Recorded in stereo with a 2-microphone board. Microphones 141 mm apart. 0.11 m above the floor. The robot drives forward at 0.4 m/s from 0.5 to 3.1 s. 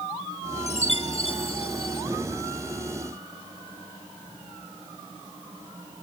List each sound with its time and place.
0.7 s a chime: 50° left (ahead or behind); by 2.0 s 40° left (ahead or behind)